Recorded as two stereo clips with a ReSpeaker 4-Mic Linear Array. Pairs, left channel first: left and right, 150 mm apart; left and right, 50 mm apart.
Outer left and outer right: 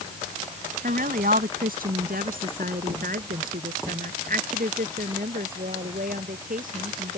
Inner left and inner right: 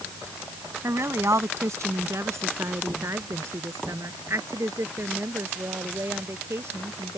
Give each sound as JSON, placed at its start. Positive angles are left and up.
{"t": 0.8, "sound": "a woman speaking", "side_deg": -70}